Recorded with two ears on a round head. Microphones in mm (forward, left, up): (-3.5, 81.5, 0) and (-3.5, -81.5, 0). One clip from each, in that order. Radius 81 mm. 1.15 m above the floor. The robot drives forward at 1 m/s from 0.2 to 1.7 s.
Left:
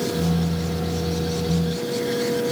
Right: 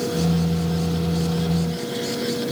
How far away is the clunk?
No clunk in this recording.